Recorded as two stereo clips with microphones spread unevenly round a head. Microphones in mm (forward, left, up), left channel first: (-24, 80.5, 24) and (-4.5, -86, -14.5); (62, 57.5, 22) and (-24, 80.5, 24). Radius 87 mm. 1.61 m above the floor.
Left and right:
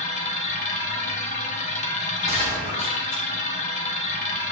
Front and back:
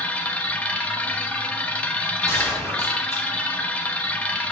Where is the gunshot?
40° left, 3 m.